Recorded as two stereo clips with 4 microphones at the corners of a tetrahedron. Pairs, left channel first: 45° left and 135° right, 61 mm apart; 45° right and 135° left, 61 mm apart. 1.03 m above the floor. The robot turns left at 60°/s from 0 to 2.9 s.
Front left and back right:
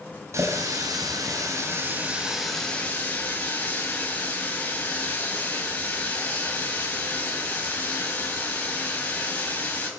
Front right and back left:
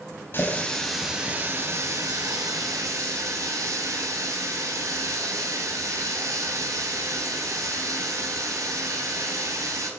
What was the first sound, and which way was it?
A running tap, 95° right.